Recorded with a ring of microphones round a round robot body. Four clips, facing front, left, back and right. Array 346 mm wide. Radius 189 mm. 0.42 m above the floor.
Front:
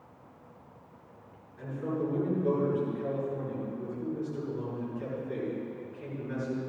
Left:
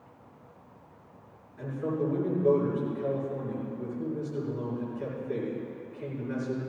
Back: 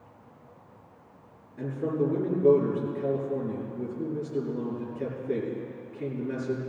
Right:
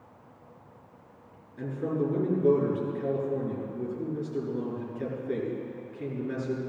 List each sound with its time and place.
1.6 s a man speaking: 145° right, 6 m